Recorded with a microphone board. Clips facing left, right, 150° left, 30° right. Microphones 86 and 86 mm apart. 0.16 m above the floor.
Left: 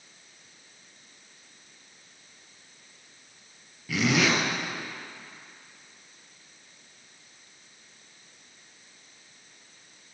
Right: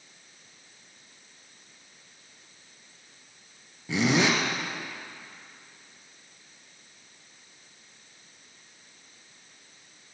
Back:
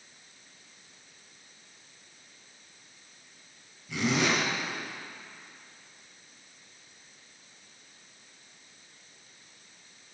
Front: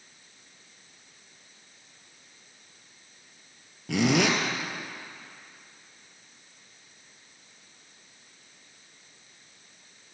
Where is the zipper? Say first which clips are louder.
Right 1 dB, front 4 dB; 30° right, 3 m.